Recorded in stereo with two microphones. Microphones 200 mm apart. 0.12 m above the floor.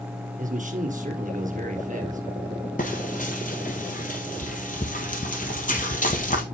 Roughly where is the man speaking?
Right.